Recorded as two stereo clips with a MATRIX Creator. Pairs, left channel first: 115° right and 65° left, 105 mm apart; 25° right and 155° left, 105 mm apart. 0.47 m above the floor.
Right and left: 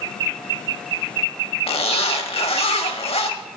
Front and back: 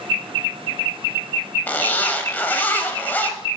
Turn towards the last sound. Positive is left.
turn(degrees=-95)